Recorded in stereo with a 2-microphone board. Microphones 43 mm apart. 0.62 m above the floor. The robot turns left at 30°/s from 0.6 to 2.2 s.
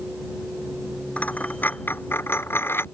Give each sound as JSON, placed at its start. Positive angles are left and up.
{"t": 1.2, "sound": "a dropped coin", "side_deg": 35}